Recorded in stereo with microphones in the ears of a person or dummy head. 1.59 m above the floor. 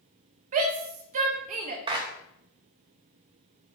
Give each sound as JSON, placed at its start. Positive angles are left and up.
{"t": 0.5, "sound": "a shout", "side_deg": -45, "distance_m": 0.8}
{"t": 1.9, "sound": "a clap", "side_deg": -30, "distance_m": 0.7}